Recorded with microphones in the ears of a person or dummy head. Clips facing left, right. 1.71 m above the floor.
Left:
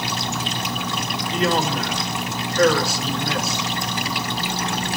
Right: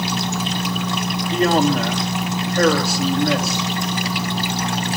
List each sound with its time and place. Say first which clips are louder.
1.3 s a man speaking: right 5 dB; 50° right (ahead or behind), 3.5 m